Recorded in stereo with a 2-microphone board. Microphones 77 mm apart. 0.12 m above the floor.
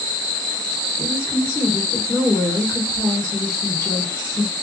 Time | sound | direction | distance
1.0 | a woman speaking | 35° left (ahead or behind) | 1.5 m